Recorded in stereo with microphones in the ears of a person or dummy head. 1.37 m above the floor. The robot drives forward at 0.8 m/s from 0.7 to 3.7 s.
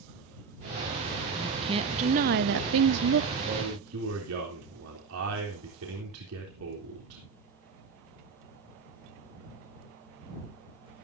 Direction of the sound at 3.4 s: 85° right.